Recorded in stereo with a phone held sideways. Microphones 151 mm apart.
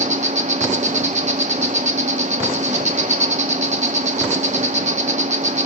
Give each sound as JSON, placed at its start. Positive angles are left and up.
{"t": 0.0, "sound": "an insect", "side_deg": -50, "distance_m": 0.7}